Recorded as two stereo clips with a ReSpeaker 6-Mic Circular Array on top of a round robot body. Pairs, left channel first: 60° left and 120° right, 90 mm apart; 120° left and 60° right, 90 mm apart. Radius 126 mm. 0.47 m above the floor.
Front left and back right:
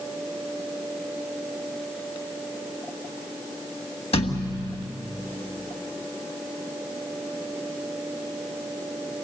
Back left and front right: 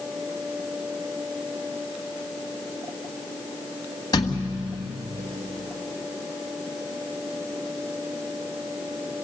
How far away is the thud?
About 1.7 m.